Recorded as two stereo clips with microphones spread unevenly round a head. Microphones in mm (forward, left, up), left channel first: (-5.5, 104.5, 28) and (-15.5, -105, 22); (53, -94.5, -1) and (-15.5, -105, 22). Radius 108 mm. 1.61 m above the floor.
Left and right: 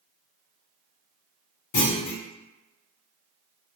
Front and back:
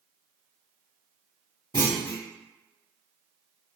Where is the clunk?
85° left, 0.7 m.